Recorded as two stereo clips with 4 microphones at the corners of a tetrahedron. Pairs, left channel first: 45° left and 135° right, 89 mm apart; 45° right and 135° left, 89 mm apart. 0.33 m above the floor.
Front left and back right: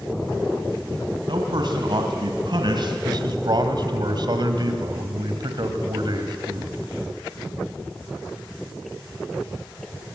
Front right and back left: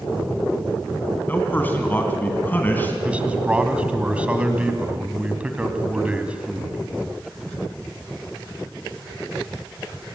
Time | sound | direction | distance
1.3 | a man speaking | 110° right | 2 m
3.0 | a man speaking | 150° right | 2.5 m